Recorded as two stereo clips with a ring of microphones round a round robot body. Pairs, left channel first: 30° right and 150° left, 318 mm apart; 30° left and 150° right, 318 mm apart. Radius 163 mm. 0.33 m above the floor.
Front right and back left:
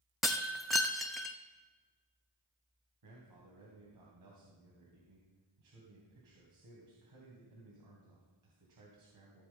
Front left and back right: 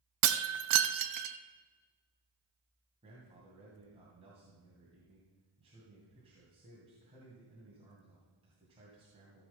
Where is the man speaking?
140° left, 2.5 m.